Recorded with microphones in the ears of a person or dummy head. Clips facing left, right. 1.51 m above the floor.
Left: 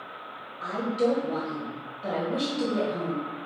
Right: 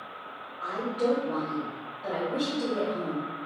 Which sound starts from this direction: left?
A woman speaking, at 0.6 s.